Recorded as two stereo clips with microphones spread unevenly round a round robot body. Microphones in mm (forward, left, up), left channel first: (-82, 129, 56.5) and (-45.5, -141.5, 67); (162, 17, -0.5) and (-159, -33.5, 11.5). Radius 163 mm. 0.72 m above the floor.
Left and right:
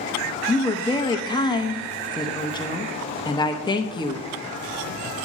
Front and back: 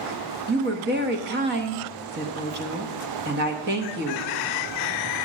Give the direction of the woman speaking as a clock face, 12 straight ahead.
7 o'clock.